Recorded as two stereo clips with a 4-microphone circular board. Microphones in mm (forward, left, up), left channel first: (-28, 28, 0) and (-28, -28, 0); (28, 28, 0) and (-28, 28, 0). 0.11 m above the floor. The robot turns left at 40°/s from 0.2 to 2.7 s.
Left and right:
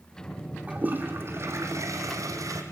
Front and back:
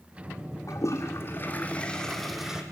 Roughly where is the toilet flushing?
Ahead right.